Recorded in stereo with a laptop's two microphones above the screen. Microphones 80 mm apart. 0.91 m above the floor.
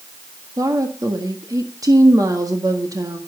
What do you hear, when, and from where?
0.6 s a woman speaking: 50° right (ahead or behind), 1.6 m